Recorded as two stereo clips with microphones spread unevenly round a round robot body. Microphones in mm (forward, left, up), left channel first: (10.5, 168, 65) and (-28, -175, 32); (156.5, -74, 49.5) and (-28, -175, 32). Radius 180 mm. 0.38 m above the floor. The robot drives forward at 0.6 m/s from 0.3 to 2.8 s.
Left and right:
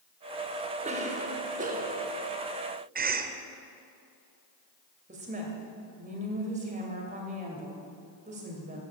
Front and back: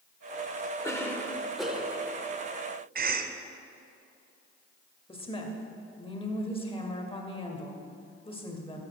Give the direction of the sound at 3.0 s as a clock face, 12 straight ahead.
5 o'clock.